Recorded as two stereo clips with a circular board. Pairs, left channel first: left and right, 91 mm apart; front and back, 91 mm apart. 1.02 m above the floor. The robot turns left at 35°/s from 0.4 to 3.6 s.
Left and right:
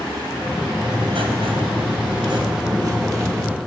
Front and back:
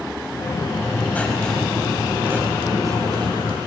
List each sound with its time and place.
0.8 s writing: 60° right, 4 m; by 3.6 s 160° right, 4 m